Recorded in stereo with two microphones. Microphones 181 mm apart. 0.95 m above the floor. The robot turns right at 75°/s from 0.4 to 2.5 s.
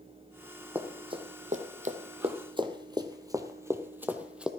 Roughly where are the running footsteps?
Centre.